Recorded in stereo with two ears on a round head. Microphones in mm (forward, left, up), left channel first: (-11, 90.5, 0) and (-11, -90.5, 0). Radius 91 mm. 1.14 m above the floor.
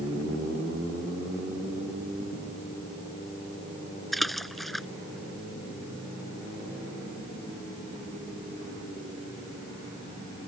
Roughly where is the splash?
Centre.